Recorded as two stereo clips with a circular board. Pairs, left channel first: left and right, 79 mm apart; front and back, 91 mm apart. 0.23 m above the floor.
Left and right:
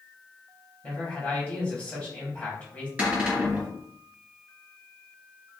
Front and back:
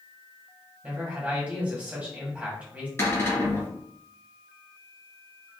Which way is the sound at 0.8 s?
130° left.